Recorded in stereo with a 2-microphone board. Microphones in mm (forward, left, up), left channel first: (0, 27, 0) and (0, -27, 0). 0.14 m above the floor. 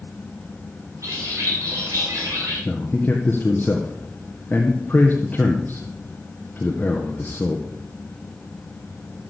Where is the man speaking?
35° left (ahead or behind), 2 m.